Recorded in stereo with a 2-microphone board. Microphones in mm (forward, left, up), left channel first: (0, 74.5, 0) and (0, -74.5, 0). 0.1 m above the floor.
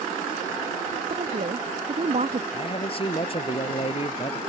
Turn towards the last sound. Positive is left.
turn(degrees=40)  # may be behind; listen again after turning